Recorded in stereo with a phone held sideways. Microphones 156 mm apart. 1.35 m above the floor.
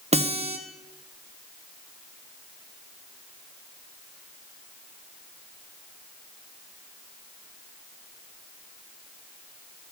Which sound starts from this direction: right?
A guitar, at 0.1 s.